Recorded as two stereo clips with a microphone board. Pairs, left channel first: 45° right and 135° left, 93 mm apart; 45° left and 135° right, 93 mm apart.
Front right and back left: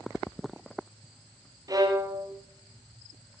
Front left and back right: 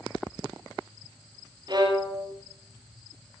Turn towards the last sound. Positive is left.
turn(degrees=-175)